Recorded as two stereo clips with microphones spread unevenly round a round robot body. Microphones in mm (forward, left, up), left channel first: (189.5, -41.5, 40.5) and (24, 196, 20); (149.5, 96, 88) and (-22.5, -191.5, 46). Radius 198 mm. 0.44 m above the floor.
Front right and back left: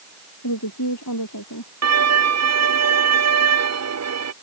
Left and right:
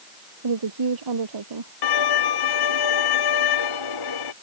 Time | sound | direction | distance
0.4 | a woman speaking | 105° right | ?
1.8 | a violin | 95° left | ?